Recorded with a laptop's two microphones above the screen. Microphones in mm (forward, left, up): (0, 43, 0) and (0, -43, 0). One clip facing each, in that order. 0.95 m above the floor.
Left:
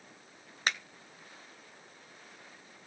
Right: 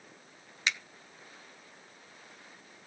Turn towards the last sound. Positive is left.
turn(degrees=45)  # may be behind; listen again after turning